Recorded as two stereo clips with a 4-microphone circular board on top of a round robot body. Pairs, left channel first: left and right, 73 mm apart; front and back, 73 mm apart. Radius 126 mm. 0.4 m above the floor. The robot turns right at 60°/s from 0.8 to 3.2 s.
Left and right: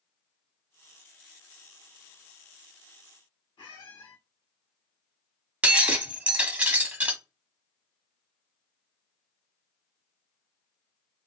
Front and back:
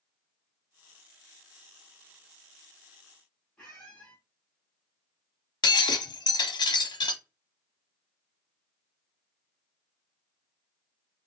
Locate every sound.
3.6 s a squeak: 80° left, 0.5 m
5.6 s breaking glass: 20° right, 0.6 m